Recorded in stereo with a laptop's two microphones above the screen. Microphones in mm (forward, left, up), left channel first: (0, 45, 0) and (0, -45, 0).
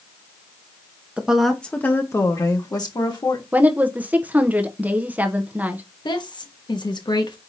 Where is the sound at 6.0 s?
55° left (ahead or behind), 1.1 m.